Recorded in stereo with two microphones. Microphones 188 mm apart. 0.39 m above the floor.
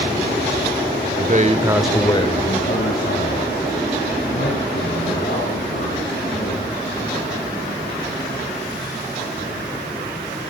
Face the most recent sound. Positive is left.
turn(degrees=75)  # may be behind; listen again after turning